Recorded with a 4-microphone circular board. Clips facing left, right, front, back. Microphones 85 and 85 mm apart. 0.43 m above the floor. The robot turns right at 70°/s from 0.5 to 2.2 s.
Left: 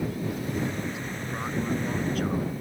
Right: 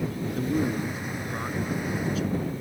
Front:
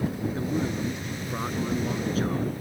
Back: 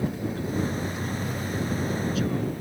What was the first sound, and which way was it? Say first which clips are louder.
A man speaking: right 4 dB, front 1 dB; 65° right.